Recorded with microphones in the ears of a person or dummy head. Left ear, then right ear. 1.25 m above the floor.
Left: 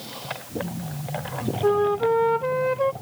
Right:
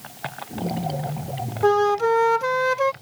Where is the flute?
65° right (ahead or behind).